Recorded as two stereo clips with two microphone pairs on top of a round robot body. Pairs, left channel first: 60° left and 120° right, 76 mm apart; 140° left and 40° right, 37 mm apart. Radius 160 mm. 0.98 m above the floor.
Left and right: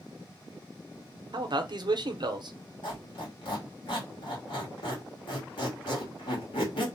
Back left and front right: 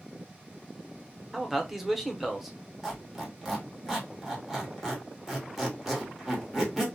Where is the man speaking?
130° right, 0.7 m.